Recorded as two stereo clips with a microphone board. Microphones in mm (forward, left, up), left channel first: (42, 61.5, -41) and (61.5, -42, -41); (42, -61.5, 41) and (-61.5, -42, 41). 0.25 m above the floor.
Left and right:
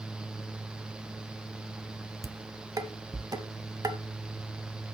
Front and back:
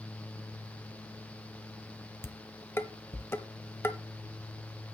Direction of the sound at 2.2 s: 65° right.